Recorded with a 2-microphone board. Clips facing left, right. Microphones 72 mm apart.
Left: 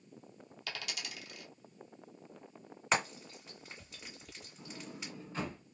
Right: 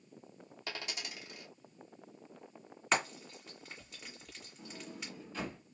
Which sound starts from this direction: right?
A dropped coin, at 0.7 s.